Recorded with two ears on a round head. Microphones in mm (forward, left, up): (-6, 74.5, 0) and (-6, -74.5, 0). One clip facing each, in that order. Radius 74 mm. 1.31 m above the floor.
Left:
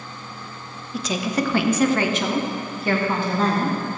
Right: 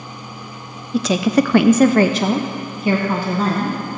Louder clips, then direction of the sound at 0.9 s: Right 8 dB; 50° right (ahead or behind).